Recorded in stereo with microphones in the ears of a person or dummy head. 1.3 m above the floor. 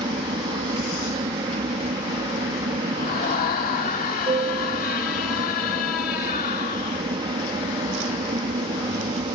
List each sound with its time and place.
0.0 s an aircraft: 20° right (ahead or behind)
3.0 s a scream: 45° left (ahead or behind)